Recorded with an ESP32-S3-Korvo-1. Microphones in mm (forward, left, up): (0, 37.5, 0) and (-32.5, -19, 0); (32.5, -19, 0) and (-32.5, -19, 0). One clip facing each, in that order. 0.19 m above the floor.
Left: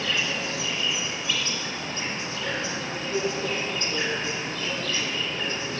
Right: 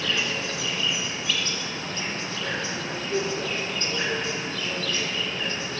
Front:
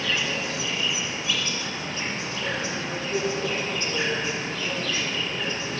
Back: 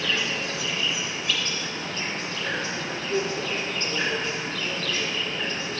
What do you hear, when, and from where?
0.0 s an insect: 45° left, 1.3 m